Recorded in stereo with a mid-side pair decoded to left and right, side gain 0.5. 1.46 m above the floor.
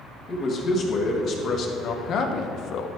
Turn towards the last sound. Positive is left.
turn(degrees=75)